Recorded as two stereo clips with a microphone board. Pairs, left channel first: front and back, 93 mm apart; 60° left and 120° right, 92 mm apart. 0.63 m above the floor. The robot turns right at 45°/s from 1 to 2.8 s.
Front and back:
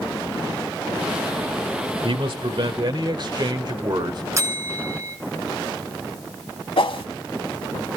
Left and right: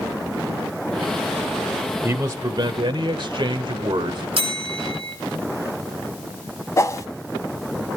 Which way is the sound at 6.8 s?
5° left.